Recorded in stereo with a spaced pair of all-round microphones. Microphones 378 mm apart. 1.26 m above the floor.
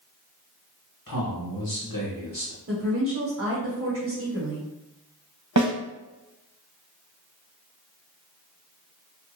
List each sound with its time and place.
1.1 s a man speaking: 60° left (ahead or behind), 1.4 m
2.7 s a woman speaking: 30° right (ahead or behind), 1.1 m
5.6 s a snare drum: 50° right (ahead or behind), 0.7 m